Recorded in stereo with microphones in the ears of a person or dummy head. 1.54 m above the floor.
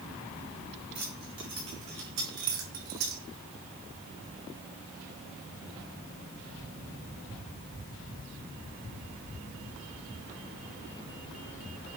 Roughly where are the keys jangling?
Right.